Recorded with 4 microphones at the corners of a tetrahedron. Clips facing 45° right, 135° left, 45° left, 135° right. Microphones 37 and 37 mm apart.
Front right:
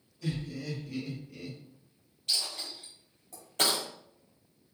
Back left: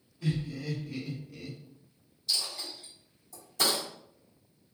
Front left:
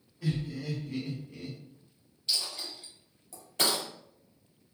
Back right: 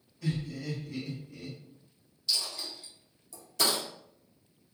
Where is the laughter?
100° left, 1.2 m; by 1.6 s 45° left, 1.3 m.